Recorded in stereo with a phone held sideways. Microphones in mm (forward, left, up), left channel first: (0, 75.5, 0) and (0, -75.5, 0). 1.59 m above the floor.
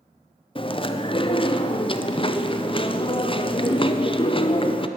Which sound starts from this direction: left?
Chewing, at 0.6 s.